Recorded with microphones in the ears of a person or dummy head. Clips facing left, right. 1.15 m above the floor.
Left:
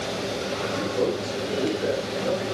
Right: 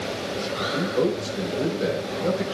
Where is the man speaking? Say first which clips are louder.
Right 2 dB; 60° right (ahead or behind), 5 m.